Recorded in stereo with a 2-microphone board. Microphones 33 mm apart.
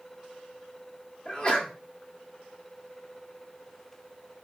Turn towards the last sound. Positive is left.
turn(degrees=30)  # may be behind; listen again after turning